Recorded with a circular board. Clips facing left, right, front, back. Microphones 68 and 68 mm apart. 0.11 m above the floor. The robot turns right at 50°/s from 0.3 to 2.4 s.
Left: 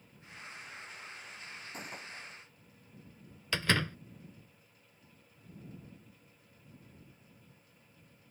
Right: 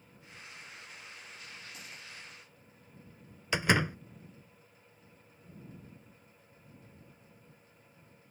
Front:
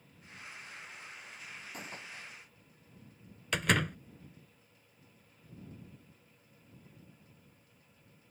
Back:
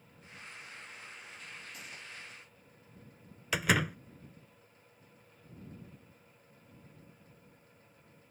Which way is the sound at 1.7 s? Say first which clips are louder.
Left 4 dB, front 2 dB; 40° left.